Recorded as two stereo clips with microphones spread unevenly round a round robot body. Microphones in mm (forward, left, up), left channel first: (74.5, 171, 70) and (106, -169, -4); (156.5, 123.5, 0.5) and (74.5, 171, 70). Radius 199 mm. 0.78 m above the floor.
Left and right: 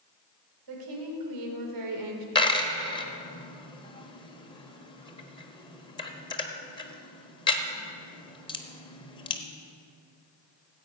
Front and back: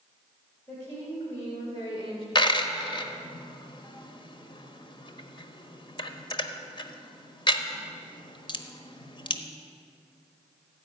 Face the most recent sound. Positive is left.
turn(degrees=20)